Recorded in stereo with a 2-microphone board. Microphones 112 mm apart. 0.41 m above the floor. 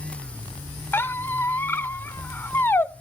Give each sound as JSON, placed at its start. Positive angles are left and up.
{"t": 0.9, "sound": "a squeak", "side_deg": 20, "distance_m": 0.6}